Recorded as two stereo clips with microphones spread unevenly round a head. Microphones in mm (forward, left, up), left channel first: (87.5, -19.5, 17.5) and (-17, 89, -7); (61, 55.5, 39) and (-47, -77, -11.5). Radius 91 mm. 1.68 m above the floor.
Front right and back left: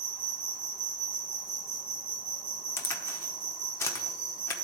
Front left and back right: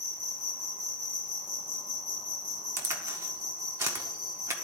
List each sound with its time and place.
0.0 s an insect: 130° left, 2.5 m
2.8 s a crack: 35° right, 0.8 m